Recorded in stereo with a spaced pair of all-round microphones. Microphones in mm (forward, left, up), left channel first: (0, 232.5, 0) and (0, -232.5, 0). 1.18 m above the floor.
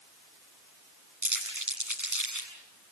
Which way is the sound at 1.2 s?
40° right (ahead or behind).